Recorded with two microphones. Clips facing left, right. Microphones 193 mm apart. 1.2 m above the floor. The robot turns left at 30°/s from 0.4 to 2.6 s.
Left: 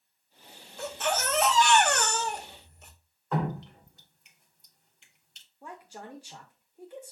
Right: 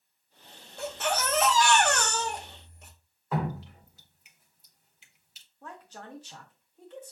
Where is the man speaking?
10° left (ahead or behind), 0.6 m.